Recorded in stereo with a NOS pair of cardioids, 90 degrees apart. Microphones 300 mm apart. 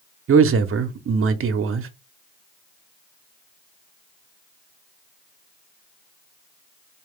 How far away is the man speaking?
About 0.9 m.